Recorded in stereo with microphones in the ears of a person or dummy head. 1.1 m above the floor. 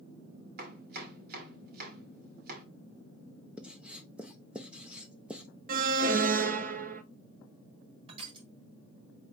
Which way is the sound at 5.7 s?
45° right (ahead or behind).